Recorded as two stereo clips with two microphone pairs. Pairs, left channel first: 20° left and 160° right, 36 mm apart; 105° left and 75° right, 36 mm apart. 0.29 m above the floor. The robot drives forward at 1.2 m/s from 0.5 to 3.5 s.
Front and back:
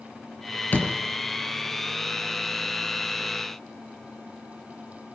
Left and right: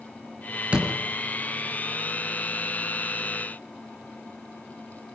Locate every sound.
0.7 s a door slam: 20° right, 4.5 m